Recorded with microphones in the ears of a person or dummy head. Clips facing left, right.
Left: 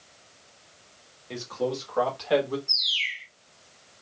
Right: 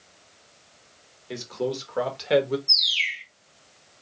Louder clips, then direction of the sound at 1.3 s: Right 1 dB; 20° right (ahead or behind).